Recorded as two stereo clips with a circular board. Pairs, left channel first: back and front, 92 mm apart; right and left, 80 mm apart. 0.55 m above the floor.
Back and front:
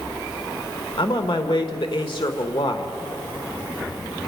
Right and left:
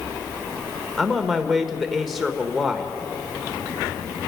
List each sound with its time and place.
1.0 s a man speaking: straight behind, 1.4 m